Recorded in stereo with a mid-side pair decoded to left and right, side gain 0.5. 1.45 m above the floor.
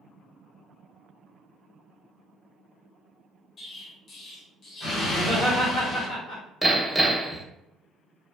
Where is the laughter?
70° left, 1.8 m.